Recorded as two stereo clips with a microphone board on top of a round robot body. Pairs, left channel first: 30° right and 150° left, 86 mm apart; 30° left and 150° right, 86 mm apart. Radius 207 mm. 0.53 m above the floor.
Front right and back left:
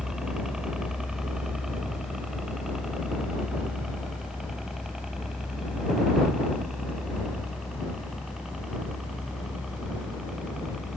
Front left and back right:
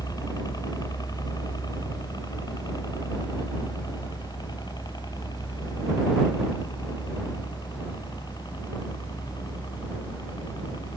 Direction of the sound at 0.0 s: 65° left.